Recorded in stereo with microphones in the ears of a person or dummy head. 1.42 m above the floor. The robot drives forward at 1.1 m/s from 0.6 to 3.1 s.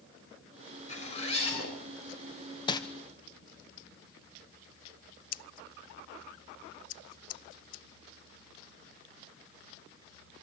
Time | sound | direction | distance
0.9 | a zipper | 45° left (ahead or behind) | 6 m
2.7 | crumpling | 25° left (ahead or behind) | 0.9 m
5.3 | scissors | 45° left (ahead or behind) | 0.7 m